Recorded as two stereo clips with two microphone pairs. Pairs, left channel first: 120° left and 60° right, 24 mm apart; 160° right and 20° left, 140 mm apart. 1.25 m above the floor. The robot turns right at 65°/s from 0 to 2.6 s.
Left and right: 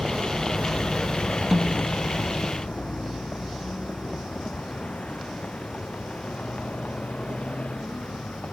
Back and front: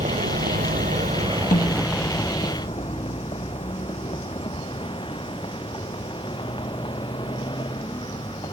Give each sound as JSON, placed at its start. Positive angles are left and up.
{"t": 0.0, "sound": "a vehicle", "azimuth_deg": -10}
{"t": 1.5, "sound": "a snare drum", "azimuth_deg": -145}